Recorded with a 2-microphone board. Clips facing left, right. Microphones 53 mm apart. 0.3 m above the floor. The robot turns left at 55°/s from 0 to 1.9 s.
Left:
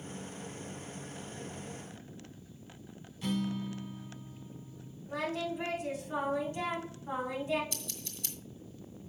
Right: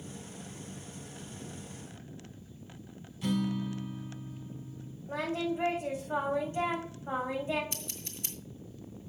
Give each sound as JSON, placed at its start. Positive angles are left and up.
{"t": 3.2, "sound": "a guitar", "side_deg": 0, "distance_m": 1.9}
{"t": 5.1, "sound": "singing", "side_deg": -20, "distance_m": 5.5}
{"t": 7.7, "sound": "scissors", "side_deg": -25, "distance_m": 2.0}